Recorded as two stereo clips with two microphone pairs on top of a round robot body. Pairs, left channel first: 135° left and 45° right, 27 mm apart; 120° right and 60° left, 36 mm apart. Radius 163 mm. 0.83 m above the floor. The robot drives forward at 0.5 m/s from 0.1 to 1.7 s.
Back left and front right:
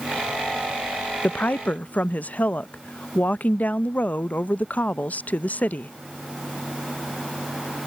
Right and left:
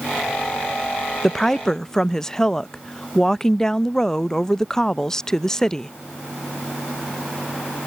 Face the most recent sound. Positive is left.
turn(degrees=160)